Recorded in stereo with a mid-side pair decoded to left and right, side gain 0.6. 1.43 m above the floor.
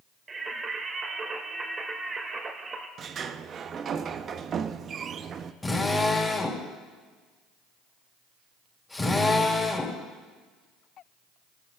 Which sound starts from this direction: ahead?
A drill, at 5.6 s.